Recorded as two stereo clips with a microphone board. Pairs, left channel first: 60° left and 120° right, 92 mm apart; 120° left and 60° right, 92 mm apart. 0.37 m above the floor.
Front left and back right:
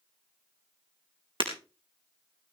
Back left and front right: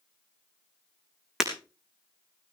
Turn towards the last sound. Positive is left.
turn(degrees=-145)